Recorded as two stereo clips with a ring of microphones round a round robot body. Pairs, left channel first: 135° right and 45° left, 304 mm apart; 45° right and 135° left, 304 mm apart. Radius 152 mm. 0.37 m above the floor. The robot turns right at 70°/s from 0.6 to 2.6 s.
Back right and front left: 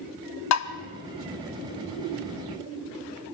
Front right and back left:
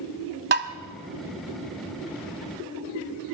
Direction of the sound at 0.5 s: 170° right.